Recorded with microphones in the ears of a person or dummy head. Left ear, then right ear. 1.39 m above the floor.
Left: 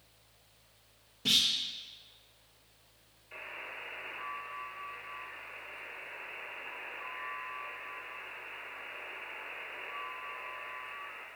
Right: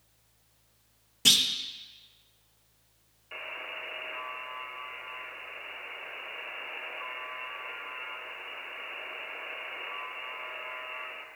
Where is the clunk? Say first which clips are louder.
Right 5 dB; 55° right (ahead or behind), 0.7 m.